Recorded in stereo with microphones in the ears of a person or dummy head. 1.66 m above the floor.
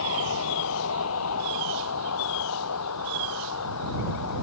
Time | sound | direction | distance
0.0 | a vehicle | 65° left (ahead or behind) | ?